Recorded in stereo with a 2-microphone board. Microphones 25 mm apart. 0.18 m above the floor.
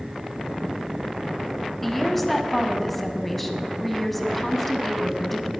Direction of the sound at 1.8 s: 5° left (ahead or behind).